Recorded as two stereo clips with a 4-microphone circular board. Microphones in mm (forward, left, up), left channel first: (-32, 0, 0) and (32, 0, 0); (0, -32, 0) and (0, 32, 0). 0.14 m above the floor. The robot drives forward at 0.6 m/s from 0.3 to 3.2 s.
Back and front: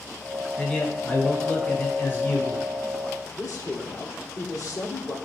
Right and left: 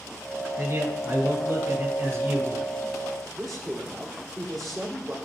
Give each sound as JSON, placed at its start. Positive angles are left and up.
{"t": 0.6, "sound": "a man speaking", "azimuth_deg": 110, "distance_m": 2.0}
{"t": 3.4, "sound": "a man speaking", "azimuth_deg": 180, "distance_m": 2.5}